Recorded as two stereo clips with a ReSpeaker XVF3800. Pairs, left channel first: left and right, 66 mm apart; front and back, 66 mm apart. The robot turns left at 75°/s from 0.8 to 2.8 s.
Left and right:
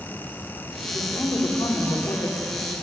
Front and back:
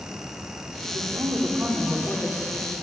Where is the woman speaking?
170° left, 4 m; by 2.7 s 30° left, 4 m.